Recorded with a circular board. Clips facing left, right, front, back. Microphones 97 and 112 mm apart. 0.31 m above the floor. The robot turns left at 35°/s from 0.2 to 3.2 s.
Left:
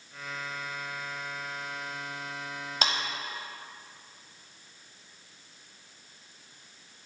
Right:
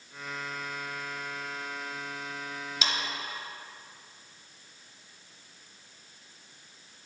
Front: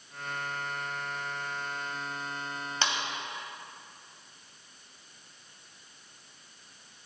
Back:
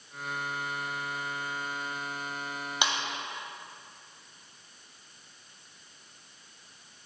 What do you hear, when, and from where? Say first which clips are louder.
2.8 s a clap: left 4 dB, back 1 dB; 110° left, 1.1 m; by 2.9 s 105° left, 1.1 m